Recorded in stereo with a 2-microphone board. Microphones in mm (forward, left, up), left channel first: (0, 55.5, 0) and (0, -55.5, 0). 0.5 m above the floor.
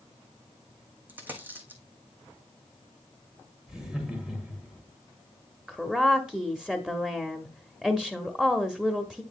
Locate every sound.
1.1 s a dropped coin: 15° right (ahead or behind), 1.5 m
3.7 s laughter: 5° right (ahead or behind), 1.8 m
5.7 s a woman speaking: 5° right (ahead or behind), 0.7 m